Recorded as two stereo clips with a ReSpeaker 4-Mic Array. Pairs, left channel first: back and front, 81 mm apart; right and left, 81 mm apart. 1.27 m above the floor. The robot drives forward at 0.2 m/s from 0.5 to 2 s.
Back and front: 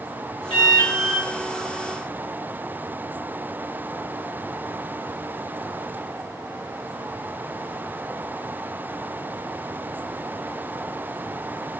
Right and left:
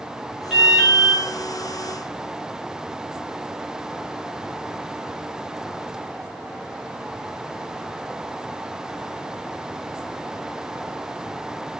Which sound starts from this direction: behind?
An alarm, at 0.5 s.